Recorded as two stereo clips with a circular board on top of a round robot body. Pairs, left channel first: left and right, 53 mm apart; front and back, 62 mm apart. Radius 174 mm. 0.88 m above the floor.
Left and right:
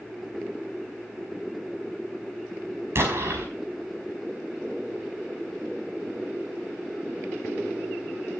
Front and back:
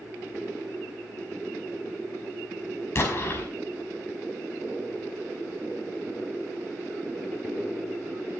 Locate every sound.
3.0 s an explosion: 50° right, 5 m